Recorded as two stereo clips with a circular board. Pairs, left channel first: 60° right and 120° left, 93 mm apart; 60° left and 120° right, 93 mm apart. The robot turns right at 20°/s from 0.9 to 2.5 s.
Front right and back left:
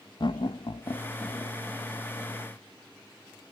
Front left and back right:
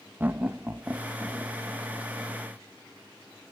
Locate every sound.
0.2 s laughter: 55° right, 0.7 m; by 1.6 s 40° right, 0.7 m